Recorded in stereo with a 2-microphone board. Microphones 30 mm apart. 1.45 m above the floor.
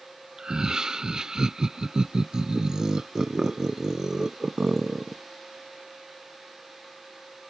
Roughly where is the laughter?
Right.